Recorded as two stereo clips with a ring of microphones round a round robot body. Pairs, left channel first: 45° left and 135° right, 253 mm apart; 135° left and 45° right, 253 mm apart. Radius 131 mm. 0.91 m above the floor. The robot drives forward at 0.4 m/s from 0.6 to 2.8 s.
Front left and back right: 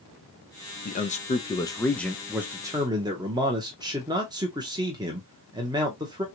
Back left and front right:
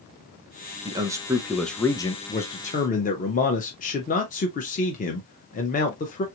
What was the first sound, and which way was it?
A man speaking, 15° left.